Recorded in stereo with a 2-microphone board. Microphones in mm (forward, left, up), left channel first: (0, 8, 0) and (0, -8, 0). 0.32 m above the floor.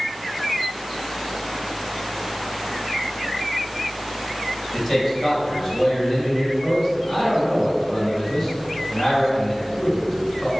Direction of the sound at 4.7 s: 10° left (ahead or behind).